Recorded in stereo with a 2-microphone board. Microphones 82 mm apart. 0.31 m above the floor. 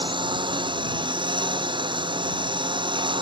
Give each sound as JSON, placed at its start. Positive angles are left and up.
{"t": 0.0, "sound": "a lawn mower", "side_deg": -80}